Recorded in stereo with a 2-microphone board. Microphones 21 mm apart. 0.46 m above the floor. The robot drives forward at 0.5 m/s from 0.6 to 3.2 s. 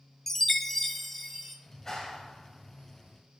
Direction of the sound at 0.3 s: 10° left (ahead or behind).